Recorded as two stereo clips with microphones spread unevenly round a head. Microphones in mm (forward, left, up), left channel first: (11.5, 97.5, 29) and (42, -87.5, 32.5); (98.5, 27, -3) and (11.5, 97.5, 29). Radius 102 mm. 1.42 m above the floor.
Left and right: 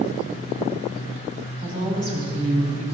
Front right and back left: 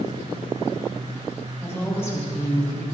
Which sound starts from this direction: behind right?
A woman speaking, at 1.6 s.